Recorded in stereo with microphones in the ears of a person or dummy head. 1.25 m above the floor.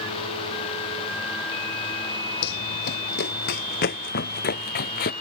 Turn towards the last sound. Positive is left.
turn(degrees=50)  # may be behind; listen again after turning